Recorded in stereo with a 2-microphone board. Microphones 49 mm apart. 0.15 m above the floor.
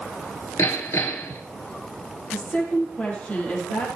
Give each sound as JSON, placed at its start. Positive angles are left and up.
{"t": 0.6, "sound": "hammering", "side_deg": 65, "distance_m": 1.5}
{"t": 2.3, "sound": "a woman speaking", "side_deg": 25, "distance_m": 5.0}